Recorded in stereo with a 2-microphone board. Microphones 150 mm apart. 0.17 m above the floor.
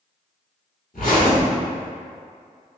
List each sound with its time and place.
0.9 s a zipper: 65° left (ahead or behind), 1.5 m